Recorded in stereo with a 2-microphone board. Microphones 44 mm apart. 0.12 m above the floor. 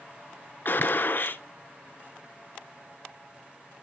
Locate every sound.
0.7 s a gunshot: 45° left (ahead or behind), 0.5 m